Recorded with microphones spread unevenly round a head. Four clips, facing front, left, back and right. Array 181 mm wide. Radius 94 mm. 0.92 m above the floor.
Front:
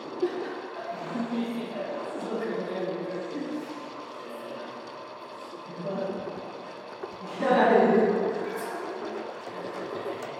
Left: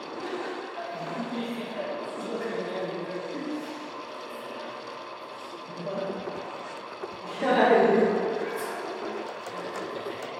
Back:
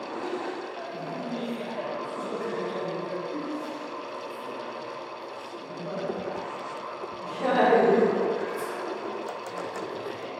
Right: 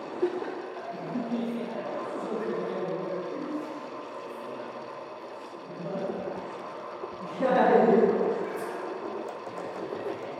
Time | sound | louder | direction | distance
0.2 | laughter | right 5 dB, front 6 dB | 40° right | 0.5 m